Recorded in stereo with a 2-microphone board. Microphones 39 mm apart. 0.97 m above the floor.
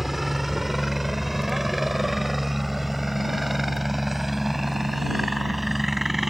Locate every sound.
0.0 s a helicopter: 5° right (ahead or behind); by 6.3 s centre (ahead or behind)